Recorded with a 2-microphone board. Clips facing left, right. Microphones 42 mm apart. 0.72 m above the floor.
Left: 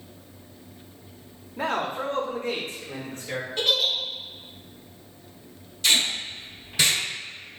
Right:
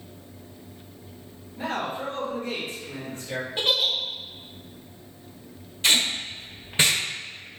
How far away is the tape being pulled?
About 1.4 m.